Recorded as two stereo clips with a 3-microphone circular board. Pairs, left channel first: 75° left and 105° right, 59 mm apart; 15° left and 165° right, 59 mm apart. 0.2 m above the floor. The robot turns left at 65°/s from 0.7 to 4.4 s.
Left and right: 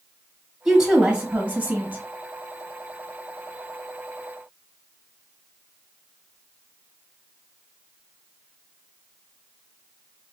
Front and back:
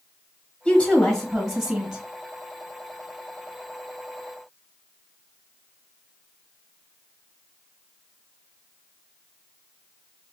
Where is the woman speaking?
25° right, 1.1 m; by 2.0 s 110° right, 1.1 m.